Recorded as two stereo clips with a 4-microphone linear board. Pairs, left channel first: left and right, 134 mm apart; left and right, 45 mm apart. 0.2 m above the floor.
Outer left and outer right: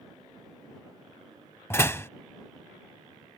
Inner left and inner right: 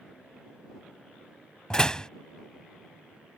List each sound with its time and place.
1.7 s a door slam: 20° left (ahead or behind)